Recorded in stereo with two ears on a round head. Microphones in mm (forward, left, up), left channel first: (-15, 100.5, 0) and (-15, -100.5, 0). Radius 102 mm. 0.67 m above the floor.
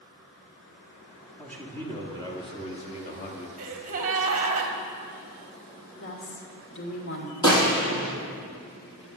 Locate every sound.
1.4 s a man speaking: 5° left (ahead or behind), 1.7 m; by 3.5 s 35° left (ahead or behind), 1.5 m
3.6 s a gasp: 35° right (ahead or behind), 1.4 m
6.0 s a woman speaking: 50° left (ahead or behind), 2 m
7.4 s a gunshot: 15° left (ahead or behind), 5 m